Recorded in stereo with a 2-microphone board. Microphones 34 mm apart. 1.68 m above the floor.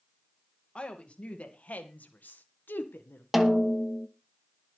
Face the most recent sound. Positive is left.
turn(degrees=0)  # may be behind; listen again after turning